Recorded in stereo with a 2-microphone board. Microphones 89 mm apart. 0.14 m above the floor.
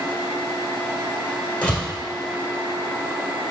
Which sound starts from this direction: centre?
A door slam, at 1.6 s.